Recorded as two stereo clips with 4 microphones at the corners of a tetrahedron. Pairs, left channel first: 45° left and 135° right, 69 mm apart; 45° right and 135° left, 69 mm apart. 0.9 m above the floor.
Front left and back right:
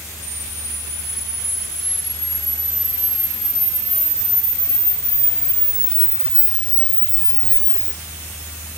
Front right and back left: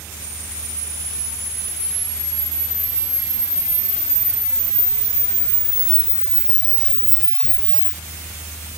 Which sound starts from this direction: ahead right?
A camera shutter, at 0.2 s.